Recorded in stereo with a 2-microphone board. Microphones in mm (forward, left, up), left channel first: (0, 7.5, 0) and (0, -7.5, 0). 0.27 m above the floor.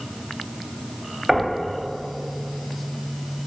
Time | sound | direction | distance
1.3 | knocking | 40° right (ahead or behind) | 0.9 m